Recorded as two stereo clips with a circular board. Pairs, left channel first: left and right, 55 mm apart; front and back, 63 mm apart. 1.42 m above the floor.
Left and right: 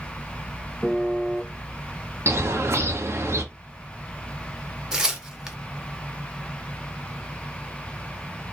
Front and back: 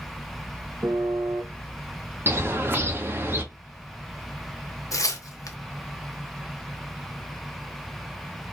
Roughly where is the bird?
Behind right.